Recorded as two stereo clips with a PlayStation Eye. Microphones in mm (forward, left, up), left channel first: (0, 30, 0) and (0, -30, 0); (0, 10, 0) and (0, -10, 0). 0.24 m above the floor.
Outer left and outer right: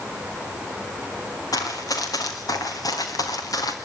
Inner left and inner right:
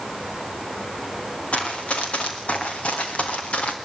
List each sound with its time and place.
1.5 s running footsteps: 85° left, 4.5 m